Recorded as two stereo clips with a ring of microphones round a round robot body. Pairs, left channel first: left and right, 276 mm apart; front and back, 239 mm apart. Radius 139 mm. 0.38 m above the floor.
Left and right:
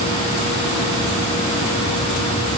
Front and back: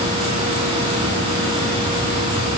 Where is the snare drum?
I don't hear a snare drum.